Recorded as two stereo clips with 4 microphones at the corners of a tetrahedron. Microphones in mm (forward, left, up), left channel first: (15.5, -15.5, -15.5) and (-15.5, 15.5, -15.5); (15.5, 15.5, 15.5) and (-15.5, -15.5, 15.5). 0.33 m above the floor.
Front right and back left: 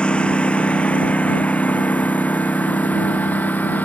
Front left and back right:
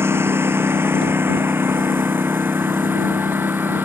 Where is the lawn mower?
115° right; by 3.9 s 95° right.